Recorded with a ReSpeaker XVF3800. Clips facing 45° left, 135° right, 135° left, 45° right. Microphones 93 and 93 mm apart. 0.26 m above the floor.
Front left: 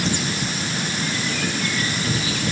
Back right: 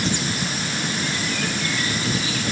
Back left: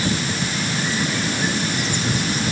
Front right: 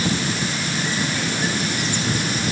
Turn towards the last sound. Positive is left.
No sound to turn to.